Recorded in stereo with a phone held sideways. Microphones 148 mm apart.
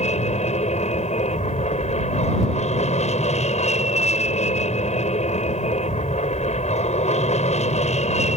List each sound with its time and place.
0.0 s an aircraft: 55° left (ahead or behind)